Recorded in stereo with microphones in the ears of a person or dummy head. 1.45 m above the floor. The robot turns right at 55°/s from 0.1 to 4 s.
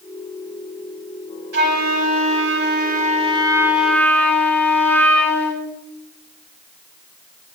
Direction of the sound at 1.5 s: 125° right.